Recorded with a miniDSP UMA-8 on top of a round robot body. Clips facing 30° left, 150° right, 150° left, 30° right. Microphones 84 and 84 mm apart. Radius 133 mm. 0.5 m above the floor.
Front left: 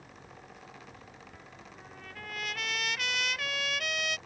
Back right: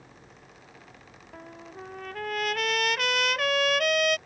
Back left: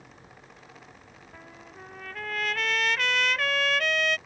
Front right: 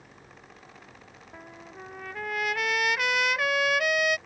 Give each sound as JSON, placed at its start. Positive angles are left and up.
{"t": 1.3, "sound": "a trumpet", "azimuth_deg": -110}